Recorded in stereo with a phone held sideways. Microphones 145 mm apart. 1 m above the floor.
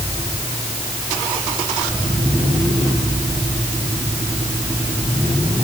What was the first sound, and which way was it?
Only background noise.